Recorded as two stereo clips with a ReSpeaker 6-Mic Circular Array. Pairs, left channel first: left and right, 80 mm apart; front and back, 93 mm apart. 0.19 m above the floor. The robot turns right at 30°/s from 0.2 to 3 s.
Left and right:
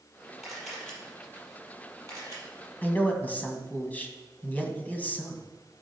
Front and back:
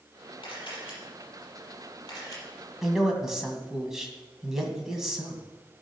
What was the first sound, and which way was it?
A camera shutter, 5° right.